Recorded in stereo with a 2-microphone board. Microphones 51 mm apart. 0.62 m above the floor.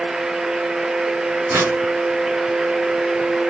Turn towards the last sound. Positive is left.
turn(degrees=-70)  # may be behind; listen again after turning